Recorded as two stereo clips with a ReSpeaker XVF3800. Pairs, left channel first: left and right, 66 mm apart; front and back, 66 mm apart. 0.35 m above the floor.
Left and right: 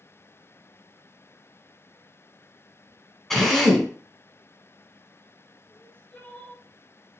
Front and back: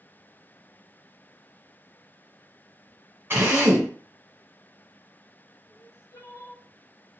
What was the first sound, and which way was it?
A drill, 175° left.